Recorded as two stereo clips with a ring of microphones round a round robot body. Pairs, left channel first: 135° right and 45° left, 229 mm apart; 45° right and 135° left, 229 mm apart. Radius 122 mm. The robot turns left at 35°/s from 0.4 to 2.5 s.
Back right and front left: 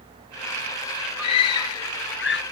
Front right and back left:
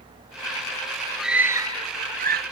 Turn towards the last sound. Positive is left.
turn(degrees=180)